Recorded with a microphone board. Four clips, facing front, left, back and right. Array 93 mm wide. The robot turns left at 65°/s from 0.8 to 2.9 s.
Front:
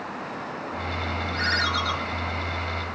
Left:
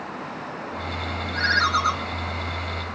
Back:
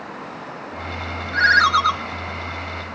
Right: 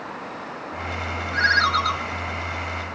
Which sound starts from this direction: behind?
A ringtone, at 1.3 s.